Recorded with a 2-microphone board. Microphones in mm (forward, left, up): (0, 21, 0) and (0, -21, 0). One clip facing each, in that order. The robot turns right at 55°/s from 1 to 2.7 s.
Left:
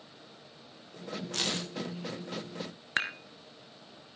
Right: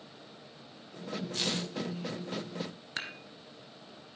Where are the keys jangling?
65° left (ahead or behind), 6 m; by 1.7 s 50° left (ahead or behind), 6 m.